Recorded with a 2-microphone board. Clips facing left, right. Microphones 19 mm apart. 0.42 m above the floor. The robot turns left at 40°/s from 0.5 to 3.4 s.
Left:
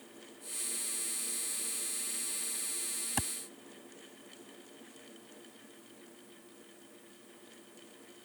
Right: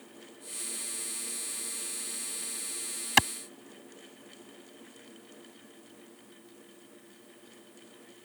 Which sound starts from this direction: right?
A clap, at 3.2 s.